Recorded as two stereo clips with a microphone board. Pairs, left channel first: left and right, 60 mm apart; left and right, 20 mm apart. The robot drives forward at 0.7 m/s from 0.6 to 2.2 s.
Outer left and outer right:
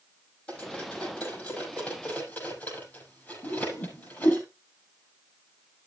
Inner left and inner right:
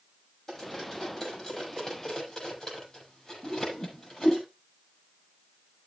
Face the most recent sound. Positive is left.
turn(degrees=75)  # may be behind; listen again after turning